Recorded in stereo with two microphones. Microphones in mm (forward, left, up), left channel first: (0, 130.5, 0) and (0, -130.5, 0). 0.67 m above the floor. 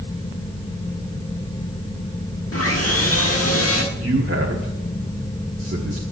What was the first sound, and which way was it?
Sawing, 60° left (ahead or behind).